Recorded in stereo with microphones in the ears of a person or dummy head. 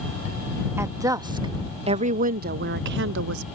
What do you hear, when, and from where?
0.8 s a woman speaking: 15° right (ahead or behind); by 3.4 s 75° right (ahead or behind)